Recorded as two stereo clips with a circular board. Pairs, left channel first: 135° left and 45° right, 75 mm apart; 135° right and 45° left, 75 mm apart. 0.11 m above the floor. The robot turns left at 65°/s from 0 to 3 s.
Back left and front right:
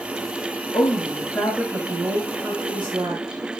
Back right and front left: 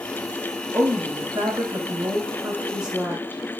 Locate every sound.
0.7 s a woman speaking: 110° left, 7.5 m; by 3.4 s 35° right, 7.5 m